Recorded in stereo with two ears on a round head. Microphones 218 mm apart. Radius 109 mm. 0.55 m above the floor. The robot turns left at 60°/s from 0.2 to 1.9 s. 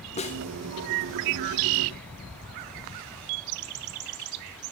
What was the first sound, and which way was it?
A snare drum, 25° left (ahead or behind).